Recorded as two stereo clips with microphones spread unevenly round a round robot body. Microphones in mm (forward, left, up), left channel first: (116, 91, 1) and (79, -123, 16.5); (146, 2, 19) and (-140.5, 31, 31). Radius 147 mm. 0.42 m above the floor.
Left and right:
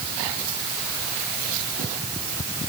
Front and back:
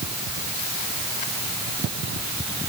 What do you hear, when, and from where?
Only background noise.